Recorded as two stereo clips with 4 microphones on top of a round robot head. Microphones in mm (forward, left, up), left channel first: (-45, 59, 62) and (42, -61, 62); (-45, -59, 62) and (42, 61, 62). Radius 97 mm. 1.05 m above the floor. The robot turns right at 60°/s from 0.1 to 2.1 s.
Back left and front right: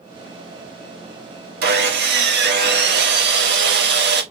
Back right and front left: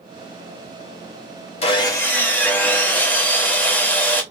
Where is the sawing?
75° right, 1.4 m; by 4.2 s 45° right, 1.4 m.